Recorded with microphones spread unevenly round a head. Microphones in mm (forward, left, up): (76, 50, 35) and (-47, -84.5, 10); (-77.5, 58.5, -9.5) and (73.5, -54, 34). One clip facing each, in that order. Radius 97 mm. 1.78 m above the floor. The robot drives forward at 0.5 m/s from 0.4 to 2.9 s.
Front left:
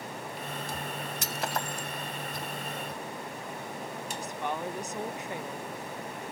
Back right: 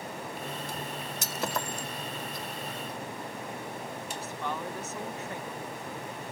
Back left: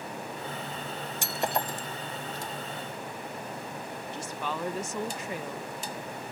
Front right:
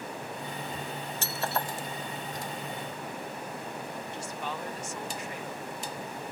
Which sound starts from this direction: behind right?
Breaking glass, at 1.2 s.